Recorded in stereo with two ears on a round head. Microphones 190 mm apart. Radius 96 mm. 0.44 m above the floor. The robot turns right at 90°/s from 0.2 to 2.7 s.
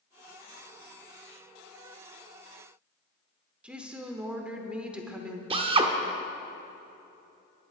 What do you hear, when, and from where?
3.6 s a woman speaking: 5° right (ahead or behind), 1.0 m
5.5 s a drill: 25° right (ahead or behind), 0.7 m